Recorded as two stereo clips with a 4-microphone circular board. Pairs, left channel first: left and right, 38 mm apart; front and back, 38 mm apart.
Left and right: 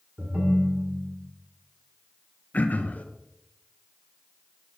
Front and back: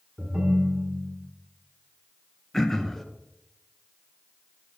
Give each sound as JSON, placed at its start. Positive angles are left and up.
{"t": 0.2, "sound": "a ringtone", "azimuth_deg": -125, "distance_m": 1.9}
{"t": 2.5, "sound": "throat clearing", "azimuth_deg": 80, "distance_m": 0.7}